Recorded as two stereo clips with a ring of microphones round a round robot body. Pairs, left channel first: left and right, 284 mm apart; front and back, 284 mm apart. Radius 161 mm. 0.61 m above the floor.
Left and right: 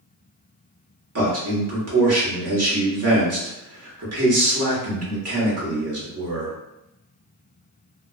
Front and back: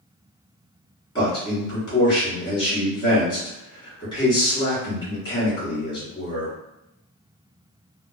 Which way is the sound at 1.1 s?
75° right.